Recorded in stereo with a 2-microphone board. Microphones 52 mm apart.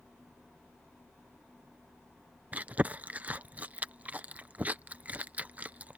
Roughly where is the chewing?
Right.